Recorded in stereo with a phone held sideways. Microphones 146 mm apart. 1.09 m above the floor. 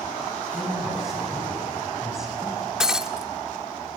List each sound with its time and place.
0.5 s a man speaking: centre (ahead or behind), 6.5 m
2.8 s breaking glass: 5° right (ahead or behind), 0.7 m